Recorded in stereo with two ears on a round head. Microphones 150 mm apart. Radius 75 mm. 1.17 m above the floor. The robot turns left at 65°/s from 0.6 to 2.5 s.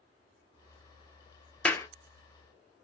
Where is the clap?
5° left (ahead or behind), 0.6 m; by 1.9 s 20° left (ahead or behind), 0.6 m.